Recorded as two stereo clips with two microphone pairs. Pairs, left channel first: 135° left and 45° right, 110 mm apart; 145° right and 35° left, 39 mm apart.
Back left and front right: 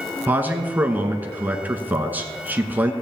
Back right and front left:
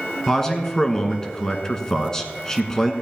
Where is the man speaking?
90° right, 1.1 m.